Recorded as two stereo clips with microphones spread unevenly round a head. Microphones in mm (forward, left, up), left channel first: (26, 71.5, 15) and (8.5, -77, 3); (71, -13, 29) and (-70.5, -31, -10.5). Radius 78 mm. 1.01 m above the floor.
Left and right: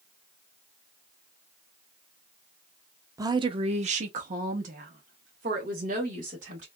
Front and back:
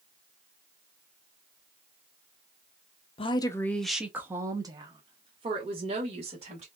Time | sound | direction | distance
3.2 | a woman speaking | 45° right | 0.5 m